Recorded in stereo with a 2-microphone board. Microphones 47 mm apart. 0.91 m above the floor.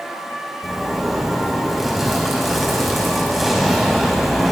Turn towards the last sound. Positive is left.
turn(degrees=0)  # may be behind; listen again after turning